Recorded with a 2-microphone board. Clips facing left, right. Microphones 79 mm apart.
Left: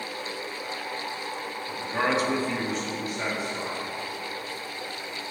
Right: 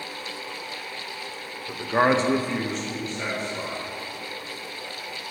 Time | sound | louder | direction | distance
1.7 | a man speaking | right 6 dB | 35° right (ahead or behind) | 0.8 m